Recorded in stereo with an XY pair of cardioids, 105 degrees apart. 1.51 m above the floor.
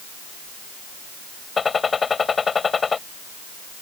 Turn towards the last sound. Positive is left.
turn(degrees=35)